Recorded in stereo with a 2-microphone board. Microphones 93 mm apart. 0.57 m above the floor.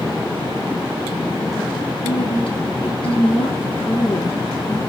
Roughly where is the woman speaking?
Left.